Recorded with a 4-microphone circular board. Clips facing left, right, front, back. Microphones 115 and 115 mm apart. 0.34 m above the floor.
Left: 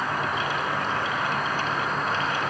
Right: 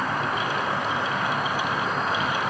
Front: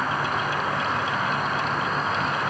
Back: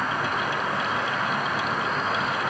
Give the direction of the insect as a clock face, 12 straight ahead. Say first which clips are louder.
Right 1 dB, front 1 dB; 1 o'clock.